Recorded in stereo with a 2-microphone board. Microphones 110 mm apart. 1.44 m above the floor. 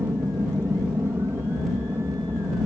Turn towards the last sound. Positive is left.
turn(degrees=-20)  # may be behind; listen again after turning